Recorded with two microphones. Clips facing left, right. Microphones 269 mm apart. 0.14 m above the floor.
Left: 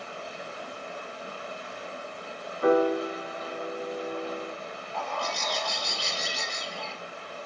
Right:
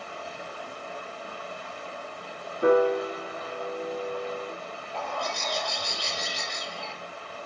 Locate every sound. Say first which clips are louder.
0.0 s running water: even; 20° left (ahead or behind), 1.4 m
2.6 s a piano: right 2 dB; 25° right (ahead or behind), 1.3 m
4.9 s a bird: right 1 dB; 10° right (ahead or behind), 2.0 m